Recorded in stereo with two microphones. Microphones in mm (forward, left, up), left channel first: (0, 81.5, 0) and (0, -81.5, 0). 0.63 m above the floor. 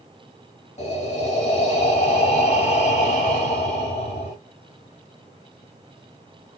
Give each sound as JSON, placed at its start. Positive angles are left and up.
{"t": 0.8, "sound": "breathing", "side_deg": 45, "distance_m": 2.5}